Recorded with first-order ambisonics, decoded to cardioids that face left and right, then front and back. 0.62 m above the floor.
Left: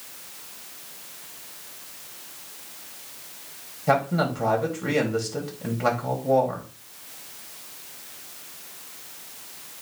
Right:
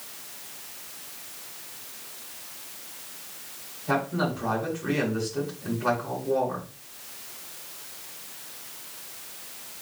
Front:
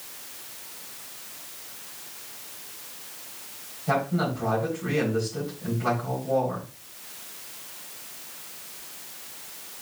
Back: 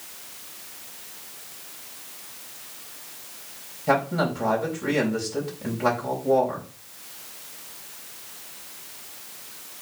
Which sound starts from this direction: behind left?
A man speaking, at 3.9 s.